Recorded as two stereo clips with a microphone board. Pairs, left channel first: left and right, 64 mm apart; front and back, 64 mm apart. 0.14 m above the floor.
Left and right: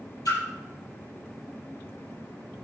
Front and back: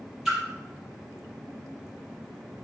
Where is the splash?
95° left, 4.5 m.